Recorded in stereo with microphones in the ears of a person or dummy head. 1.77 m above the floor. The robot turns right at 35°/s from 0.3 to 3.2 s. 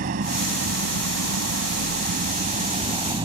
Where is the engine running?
135° right; by 3.3 s 30° right.